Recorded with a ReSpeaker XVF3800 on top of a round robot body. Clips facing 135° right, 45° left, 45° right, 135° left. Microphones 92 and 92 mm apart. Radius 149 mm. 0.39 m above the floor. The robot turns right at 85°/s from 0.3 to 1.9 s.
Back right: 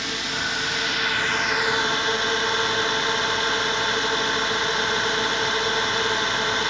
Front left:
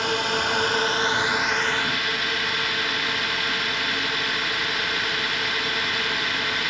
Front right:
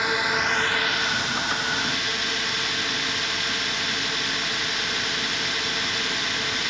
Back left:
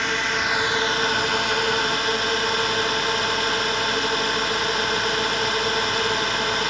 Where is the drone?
35° left; by 6.7 s 170° left.